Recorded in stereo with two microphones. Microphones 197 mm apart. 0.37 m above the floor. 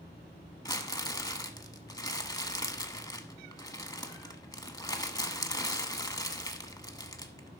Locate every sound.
0.7 s crumpling: 20° left (ahead or behind), 1.0 m